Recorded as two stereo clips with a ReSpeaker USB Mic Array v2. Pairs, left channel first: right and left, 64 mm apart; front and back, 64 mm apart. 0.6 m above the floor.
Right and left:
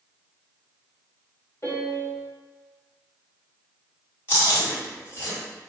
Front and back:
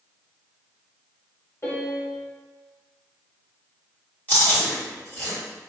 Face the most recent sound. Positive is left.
turn(degrees=-50)